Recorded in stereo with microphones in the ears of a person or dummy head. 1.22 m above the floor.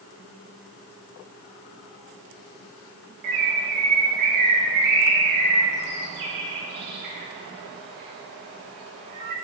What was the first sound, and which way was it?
A bird, 55° right (ahead or behind).